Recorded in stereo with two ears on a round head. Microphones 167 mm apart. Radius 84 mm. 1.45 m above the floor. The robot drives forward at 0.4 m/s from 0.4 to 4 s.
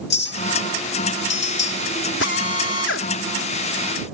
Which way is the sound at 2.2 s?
65° left (ahead or behind).